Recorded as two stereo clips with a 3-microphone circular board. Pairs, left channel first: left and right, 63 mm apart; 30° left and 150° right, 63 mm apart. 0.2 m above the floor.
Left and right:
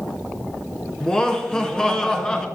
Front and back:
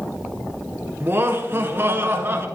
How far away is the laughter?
About 2.0 m.